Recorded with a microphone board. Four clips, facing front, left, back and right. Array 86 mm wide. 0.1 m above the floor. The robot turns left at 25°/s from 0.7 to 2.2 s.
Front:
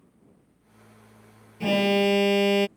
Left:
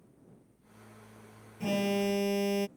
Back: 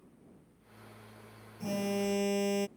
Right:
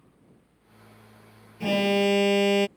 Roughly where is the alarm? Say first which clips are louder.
Right 7 dB, front 11 dB; ahead right.